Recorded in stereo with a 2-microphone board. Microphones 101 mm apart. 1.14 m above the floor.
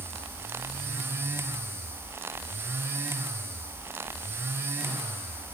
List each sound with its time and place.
Only background noise.